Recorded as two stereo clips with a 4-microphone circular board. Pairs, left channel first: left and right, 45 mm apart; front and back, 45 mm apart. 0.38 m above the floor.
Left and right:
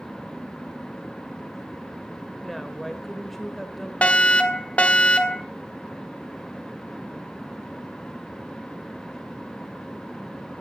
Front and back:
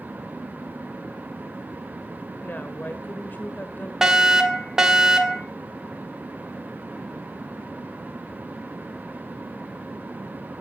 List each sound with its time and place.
2.4 s a woman speaking: 5° left, 1.6 m
4.0 s a fire alarm: 115° left, 1.9 m